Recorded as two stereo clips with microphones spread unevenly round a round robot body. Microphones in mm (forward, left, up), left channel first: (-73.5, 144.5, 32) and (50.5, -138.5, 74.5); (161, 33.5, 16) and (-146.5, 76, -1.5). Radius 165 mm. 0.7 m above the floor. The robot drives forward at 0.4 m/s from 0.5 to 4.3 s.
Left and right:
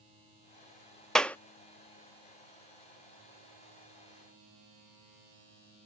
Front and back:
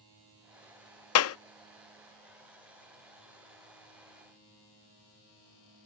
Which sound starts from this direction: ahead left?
A clap, at 1.1 s.